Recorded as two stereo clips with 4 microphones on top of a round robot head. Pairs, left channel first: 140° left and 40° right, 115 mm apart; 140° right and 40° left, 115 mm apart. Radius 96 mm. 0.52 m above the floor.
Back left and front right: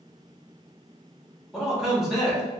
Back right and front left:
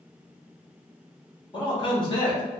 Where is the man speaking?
125° right, 1.6 m.